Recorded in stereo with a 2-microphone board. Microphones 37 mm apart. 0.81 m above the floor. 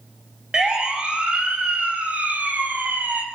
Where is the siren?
20° right (ahead or behind), 6 m; by 3.2 s 50° right (ahead or behind), 6 m.